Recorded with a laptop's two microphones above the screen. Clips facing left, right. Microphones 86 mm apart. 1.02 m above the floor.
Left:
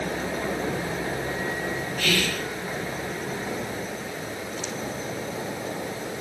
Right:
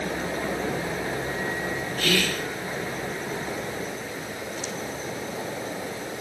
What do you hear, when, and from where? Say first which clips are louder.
2.0 s whispering: right 2 dB; 45° right (ahead or behind), 1.1 m